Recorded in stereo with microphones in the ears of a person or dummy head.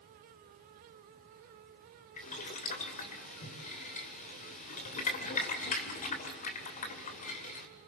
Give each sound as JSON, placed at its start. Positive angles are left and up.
{"t": 2.2, "sound": "boiling", "side_deg": 40, "distance_m": 2.5}